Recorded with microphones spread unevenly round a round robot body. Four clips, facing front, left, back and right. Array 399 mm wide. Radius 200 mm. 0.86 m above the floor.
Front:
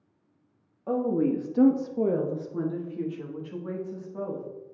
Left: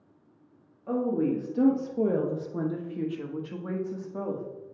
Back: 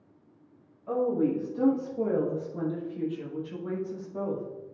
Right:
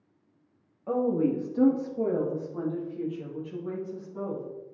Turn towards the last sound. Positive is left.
turn(degrees=115)